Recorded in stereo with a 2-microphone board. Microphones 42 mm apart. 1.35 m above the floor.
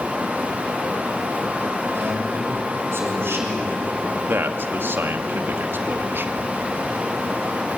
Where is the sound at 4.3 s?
60° right (ahead or behind), 1.9 m.